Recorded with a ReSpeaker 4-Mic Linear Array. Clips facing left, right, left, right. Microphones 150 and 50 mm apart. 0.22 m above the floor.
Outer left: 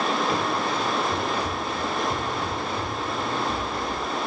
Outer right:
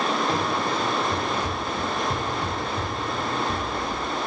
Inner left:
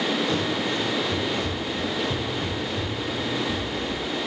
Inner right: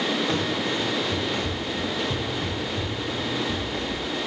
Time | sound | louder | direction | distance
0.3 | running footsteps | even, even | 40° right (ahead or behind) | 6 m